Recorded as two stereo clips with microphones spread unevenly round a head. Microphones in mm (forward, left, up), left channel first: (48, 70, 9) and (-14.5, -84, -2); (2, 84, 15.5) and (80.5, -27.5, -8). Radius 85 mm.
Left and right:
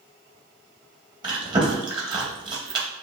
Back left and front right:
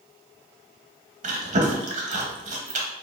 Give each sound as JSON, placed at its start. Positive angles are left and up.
{"t": 1.2, "sound": "chewing", "azimuth_deg": -55, "distance_m": 1.1}